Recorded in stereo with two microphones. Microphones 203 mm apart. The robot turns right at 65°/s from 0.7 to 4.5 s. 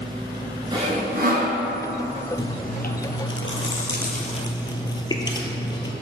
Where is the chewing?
20° left, 0.8 m; by 5.9 s 160° left, 0.8 m.